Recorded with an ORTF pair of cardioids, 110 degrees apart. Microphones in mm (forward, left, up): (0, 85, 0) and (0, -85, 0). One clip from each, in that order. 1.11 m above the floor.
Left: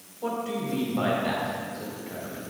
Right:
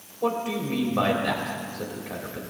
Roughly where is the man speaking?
Ahead right.